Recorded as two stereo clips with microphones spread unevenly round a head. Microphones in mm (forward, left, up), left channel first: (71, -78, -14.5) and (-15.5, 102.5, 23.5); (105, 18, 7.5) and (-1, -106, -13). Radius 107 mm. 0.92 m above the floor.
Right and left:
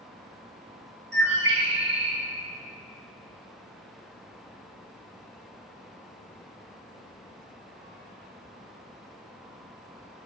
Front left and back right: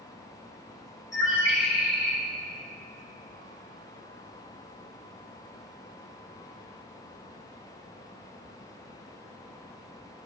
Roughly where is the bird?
Left.